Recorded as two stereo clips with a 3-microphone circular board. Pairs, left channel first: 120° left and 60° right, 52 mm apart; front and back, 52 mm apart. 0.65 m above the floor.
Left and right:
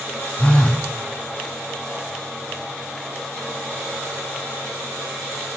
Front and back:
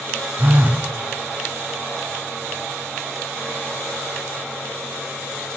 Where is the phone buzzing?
165° left, 0.6 m.